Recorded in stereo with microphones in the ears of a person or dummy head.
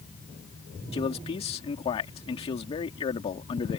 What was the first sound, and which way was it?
A man speaking, 30° left (ahead or behind).